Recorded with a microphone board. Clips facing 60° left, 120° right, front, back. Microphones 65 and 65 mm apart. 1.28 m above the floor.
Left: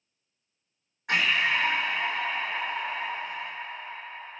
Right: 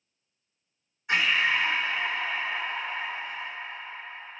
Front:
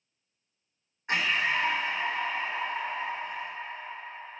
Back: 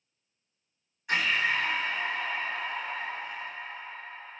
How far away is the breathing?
About 2 m.